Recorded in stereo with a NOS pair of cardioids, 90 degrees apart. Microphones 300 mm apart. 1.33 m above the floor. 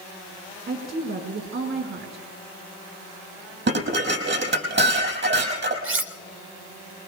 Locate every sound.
0.7 s a woman speaking: 45° right, 5 m
3.7 s dishes clattering: 40° right, 6 m
5.8 s cutlery clinking: 45° right, 1.9 m